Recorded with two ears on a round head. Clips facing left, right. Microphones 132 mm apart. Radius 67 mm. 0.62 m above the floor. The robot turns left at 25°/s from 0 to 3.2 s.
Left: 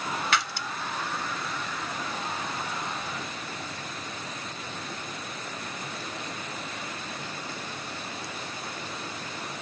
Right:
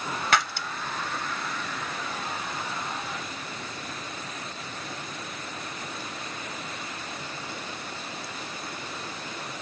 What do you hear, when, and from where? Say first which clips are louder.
0.3 s breaking glass: right 7 dB; 40° right (ahead or behind), 1.1 m; by 0.7 s 45° right (ahead or behind), 1.1 m